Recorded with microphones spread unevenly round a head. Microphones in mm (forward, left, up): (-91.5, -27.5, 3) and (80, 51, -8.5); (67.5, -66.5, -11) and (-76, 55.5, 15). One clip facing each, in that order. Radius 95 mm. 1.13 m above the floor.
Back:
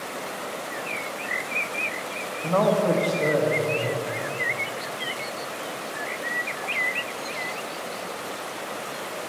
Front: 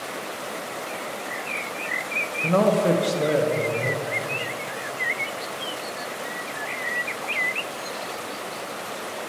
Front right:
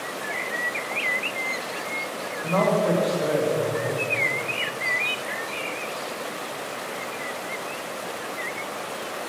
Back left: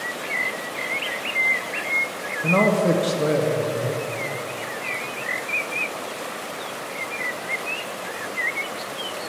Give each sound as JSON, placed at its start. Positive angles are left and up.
{"t": 2.4, "sound": "a man speaking", "azimuth_deg": 85, "distance_m": 0.6}